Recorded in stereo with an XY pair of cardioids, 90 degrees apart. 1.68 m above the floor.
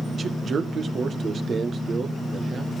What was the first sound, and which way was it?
A man speaking, 50° right.